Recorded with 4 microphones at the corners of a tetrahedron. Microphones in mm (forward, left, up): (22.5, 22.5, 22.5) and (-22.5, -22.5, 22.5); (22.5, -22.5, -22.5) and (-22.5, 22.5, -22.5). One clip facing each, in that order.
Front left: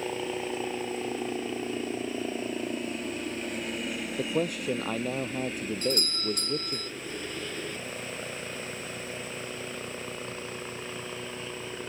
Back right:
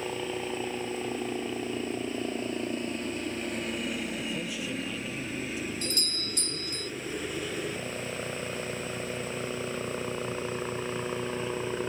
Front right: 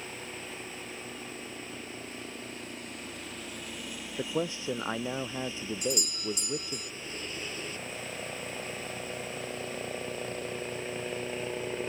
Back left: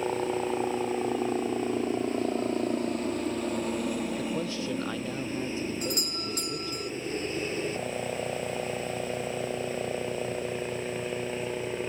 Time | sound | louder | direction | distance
0.0 | a helicopter | front left 1 dB, back left 14 dB | 130° left | ?
4.2 | a man speaking | front left 5 dB, back left 1 dB | 20° left | ?
5.8 | a doorbell | front left 5 dB, even | 90° left | ?